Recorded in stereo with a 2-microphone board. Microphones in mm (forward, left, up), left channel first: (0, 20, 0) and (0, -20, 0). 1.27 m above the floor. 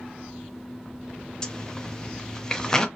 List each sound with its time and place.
1.4 s a zipper: 20° left (ahead or behind), 0.6 m